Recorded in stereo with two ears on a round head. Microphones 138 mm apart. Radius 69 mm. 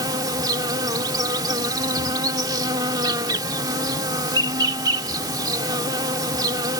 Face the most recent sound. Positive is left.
turn(degrees=-25)  # may be behind; listen again after turning